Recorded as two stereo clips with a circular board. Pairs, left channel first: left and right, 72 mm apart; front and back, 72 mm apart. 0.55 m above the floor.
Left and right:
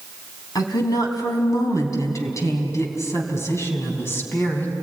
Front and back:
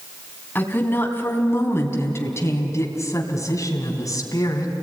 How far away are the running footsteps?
No running footsteps in this recording.